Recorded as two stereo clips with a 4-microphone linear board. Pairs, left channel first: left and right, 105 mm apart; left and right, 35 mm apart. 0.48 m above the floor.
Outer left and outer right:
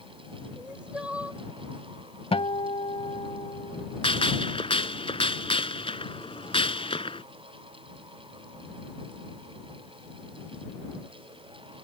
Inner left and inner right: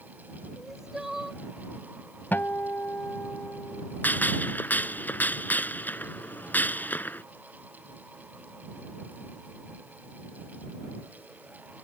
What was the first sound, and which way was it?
Crying, 10° right (ahead or behind).